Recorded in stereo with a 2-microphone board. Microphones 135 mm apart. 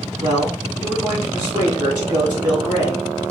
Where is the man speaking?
30° right (ahead or behind), 3 m.